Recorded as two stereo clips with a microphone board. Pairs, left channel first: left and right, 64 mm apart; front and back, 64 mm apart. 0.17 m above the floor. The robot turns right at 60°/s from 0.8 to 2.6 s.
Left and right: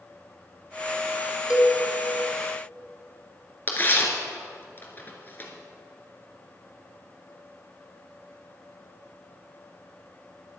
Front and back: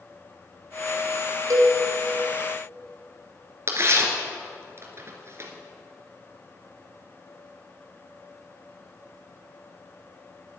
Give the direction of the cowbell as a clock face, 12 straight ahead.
6 o'clock.